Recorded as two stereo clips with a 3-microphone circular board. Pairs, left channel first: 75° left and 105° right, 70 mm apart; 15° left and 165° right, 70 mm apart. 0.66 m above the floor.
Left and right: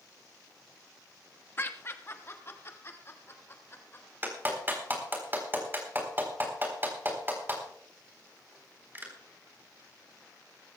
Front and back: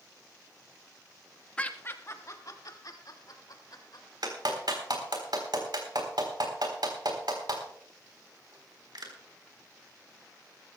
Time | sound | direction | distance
1.6 | laughter | 70° left | 1.2 m
4.2 | a clap | 165° right | 4 m